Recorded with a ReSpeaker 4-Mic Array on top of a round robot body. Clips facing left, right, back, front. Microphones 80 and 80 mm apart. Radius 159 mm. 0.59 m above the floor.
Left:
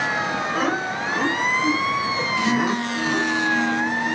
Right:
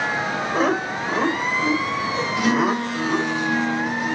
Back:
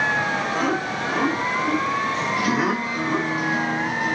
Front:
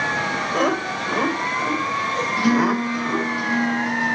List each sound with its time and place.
0.5 s laughter: 30° right, 2.5 m; by 3.3 s 50° right, 5 m
2.4 s a guitar: 65° right, 4.5 m